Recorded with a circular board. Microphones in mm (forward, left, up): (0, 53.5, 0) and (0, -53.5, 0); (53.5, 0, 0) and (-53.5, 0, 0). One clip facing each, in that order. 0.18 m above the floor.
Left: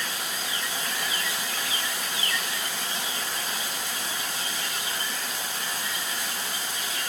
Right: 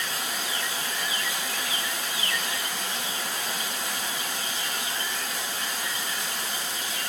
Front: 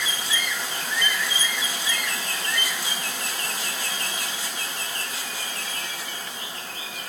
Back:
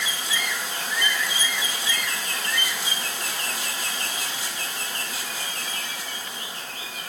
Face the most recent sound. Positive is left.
No sound to turn to.